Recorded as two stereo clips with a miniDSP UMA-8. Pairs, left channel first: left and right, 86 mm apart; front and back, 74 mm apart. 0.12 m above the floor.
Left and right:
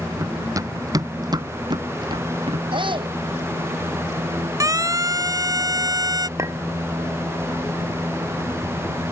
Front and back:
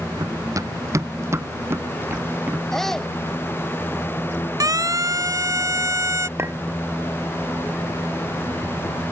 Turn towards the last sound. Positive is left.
turn(degrees=-135)